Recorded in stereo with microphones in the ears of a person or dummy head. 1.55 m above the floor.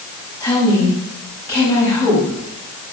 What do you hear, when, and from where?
0.4 s a woman speaking: 10° left (ahead or behind), 9.5 m